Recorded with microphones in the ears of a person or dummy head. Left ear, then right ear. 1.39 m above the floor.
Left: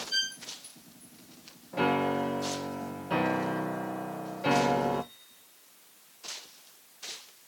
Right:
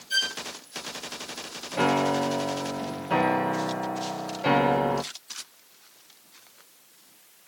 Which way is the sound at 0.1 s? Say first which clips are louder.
Right 5 dB; 70° right (ahead or behind).